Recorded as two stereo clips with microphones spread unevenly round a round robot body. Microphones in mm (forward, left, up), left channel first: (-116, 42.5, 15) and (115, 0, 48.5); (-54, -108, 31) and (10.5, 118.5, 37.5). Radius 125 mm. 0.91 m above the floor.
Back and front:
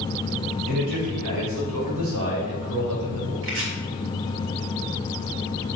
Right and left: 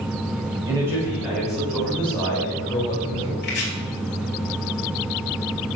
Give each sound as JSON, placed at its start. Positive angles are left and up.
{"t": 0.7, "sound": "a man speaking", "azimuth_deg": -5, "distance_m": 4.5}
{"t": 3.4, "sound": "chopping", "azimuth_deg": -55, "distance_m": 2.5}